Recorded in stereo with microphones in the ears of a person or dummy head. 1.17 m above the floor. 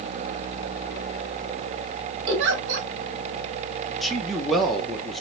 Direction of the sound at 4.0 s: Centre (ahead or behind).